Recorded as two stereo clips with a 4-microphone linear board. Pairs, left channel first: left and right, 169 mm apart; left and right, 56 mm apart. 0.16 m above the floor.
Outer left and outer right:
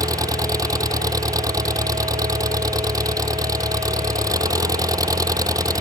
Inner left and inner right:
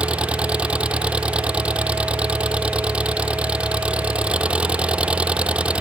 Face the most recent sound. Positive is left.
turn(degrees=-20)  # may be behind; listen again after turning